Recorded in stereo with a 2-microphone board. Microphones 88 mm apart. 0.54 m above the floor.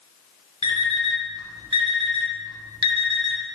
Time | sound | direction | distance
0.6 | an alarm clock | 80° right | 0.7 m